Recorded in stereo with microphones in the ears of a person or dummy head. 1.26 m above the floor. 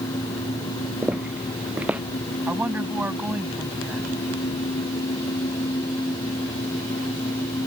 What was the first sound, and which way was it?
Footsteps, 10° right (ahead or behind).